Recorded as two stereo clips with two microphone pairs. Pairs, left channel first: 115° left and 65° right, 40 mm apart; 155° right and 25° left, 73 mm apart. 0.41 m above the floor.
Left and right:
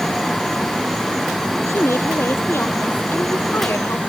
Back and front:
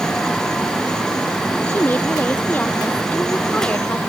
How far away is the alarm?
I don't hear an alarm.